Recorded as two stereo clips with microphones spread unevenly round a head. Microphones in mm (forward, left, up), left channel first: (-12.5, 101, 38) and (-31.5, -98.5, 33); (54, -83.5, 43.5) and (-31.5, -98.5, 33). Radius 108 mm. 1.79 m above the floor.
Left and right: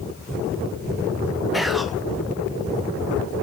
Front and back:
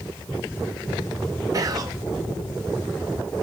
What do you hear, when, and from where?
1.5 s whispering: 175° left, 0.6 m